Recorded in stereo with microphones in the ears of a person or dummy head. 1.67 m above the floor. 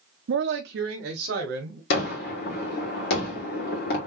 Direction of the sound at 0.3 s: 60° right (ahead or behind).